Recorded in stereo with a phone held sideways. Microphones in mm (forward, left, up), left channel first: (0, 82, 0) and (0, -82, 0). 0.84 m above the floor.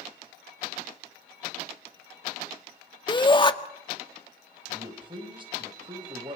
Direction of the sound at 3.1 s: 30° left (ahead or behind).